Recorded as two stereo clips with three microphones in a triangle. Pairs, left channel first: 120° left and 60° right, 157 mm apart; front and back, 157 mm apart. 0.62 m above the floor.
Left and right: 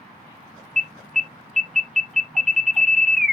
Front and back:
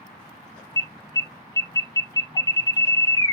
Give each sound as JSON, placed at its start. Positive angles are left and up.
{"t": 0.8, "sound": "an alarm", "azimuth_deg": 30, "distance_m": 0.6}